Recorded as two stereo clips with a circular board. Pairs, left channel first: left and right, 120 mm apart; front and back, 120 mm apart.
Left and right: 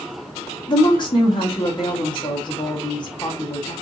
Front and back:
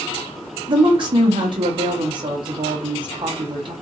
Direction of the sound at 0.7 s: 135° left.